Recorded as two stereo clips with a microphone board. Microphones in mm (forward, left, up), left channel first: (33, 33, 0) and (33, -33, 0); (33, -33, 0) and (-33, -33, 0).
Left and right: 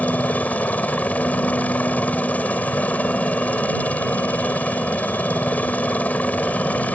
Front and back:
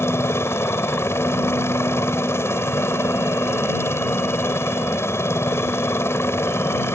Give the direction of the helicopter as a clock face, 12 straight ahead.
11 o'clock.